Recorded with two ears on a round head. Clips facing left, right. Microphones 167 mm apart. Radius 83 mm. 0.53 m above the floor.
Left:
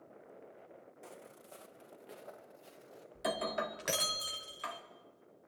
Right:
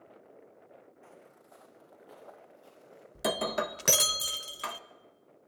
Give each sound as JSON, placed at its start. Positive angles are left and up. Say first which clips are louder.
{"t": 1.0, "sound": "footsteps", "louder": "left 2 dB", "side_deg": 50, "distance_m": 1.5}
{"t": 3.1, "sound": "breaking glass", "louder": "right 5 dB", "side_deg": -60, "distance_m": 1.1}